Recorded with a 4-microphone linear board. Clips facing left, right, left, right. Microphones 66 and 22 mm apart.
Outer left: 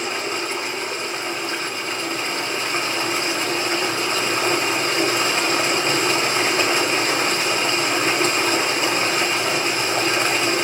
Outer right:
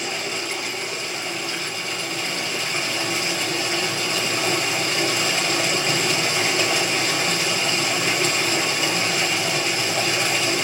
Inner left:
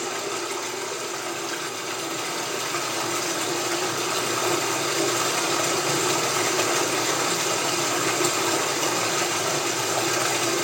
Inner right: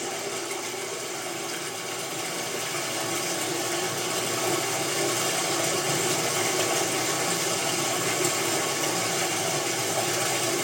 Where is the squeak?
No squeak in this recording.